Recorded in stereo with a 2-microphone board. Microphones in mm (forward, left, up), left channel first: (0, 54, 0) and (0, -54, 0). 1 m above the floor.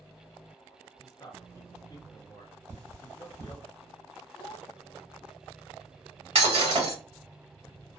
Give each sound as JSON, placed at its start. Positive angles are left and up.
{"t": 1.0, "sound": "a man speaking", "side_deg": 35, "distance_m": 0.7}
{"t": 2.7, "sound": "cutlery clinking", "side_deg": -25, "distance_m": 1.1}
{"t": 4.3, "sound": "a child speaking", "side_deg": 50, "distance_m": 0.8}
{"t": 6.3, "sound": "breaking glass", "side_deg": -65, "distance_m": 1.5}